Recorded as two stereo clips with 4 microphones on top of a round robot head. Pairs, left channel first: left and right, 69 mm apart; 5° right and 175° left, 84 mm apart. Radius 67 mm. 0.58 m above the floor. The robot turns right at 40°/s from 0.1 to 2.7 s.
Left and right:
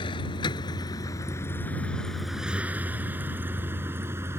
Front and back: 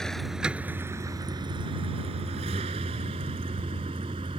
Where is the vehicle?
80° left; by 4.4 s 145° right.